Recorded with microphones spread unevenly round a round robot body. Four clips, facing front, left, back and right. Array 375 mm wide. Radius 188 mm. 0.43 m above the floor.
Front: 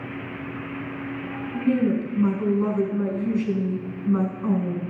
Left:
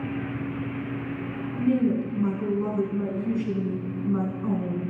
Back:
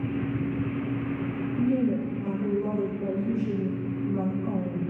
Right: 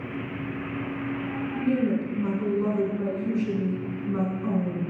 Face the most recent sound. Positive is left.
turn(degrees=15)